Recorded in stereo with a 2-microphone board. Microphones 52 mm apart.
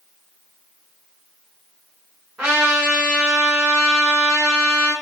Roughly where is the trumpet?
Right.